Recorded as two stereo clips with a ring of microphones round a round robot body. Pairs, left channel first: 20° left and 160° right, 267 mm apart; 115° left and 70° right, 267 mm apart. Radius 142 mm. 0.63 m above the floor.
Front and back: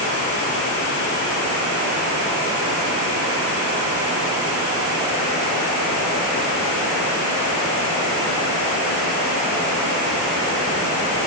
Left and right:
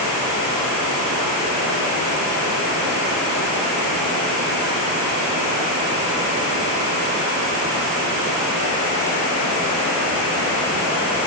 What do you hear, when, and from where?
Only background noise.